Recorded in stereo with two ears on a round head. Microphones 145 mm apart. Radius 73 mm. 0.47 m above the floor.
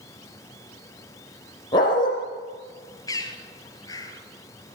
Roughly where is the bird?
Left.